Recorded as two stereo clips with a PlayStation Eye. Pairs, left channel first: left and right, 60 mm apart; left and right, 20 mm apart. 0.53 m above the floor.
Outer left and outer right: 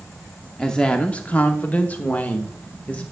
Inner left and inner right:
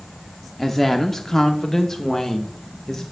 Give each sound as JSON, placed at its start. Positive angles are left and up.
{"t": 0.6, "sound": "a woman speaking", "side_deg": 10, "distance_m": 0.7}